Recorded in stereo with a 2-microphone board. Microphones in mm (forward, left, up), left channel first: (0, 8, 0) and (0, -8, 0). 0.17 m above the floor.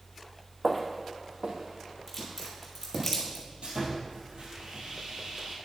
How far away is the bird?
No bird in this recording.